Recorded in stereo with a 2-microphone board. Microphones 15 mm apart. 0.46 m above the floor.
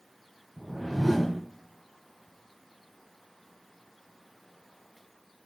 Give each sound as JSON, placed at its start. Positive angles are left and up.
{"t": 0.6, "sound": "a whoosh", "side_deg": 15, "distance_m": 2.5}